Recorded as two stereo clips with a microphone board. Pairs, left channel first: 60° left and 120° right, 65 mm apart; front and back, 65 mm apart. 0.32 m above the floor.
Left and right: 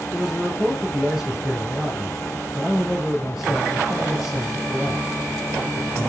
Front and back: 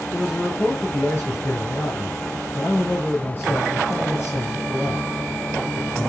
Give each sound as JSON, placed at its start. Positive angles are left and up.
{"t": 0.1, "sound": "a man speaking", "azimuth_deg": -50, "distance_m": 1.2}